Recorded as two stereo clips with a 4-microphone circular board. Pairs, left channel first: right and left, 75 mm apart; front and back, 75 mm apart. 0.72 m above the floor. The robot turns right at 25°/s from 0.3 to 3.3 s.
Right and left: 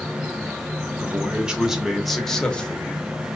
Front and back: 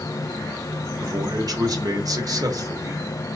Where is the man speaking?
155° left, 1.0 m; by 3.0 s 155° right, 1.0 m.